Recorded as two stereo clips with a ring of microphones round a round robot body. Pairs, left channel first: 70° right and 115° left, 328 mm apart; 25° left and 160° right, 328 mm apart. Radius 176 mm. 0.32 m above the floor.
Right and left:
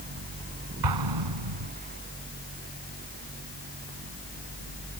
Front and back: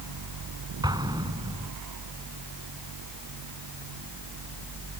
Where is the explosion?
125° left.